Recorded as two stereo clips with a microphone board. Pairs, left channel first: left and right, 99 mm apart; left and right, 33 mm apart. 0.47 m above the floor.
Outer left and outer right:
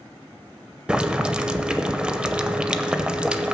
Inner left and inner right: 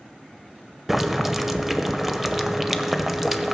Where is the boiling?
10° right (ahead or behind), 0.6 m.